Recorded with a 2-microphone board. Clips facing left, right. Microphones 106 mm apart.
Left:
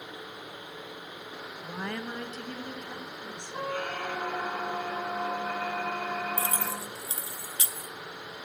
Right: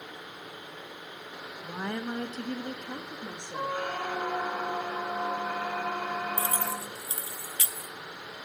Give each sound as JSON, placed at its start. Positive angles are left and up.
{"t": 1.6, "sound": "a woman speaking", "side_deg": -5, "distance_m": 0.6}
{"t": 3.5, "sound": "a squeak", "side_deg": -10, "distance_m": 1.1}
{"t": 6.4, "sound": "keys jangling", "side_deg": 25, "distance_m": 0.5}